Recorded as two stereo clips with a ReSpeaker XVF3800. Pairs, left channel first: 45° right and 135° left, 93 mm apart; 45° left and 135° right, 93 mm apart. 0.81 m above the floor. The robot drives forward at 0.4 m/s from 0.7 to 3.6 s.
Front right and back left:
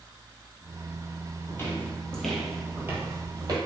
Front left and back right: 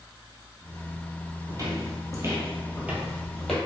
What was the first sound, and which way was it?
Footsteps, 100° right.